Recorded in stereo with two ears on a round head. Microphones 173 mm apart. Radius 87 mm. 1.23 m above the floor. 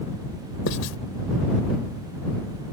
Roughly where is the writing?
Left.